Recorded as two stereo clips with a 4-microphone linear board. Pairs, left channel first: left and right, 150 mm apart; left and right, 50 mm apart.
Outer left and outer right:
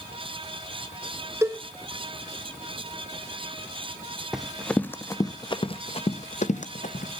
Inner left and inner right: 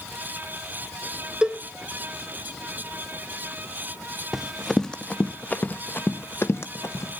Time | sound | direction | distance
1.4 | a cowbell | 20° right (ahead or behind) | 0.6 m
4.3 | running footsteps | 5° right (ahead or behind) | 1.0 m